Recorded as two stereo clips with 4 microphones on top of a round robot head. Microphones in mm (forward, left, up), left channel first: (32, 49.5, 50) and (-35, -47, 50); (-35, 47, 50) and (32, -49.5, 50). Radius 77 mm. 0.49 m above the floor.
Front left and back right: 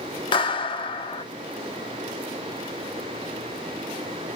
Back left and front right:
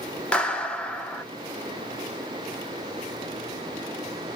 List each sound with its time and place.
0.3 s a clap: 50° left, 1.1 m